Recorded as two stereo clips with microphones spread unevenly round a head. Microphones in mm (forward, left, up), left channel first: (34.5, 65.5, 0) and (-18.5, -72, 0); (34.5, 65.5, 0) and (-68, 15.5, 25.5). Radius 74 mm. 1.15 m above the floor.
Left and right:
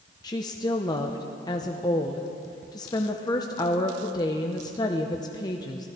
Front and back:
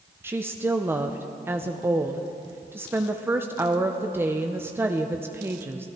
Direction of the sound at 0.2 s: 130° left.